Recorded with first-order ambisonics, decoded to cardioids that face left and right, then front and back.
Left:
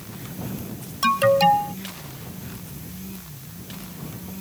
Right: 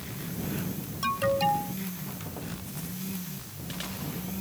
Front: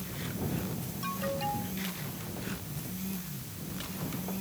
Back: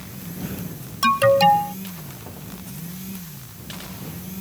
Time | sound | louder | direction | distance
1.0 | an alarm | left 9 dB, back 20 dB | 150° left | ?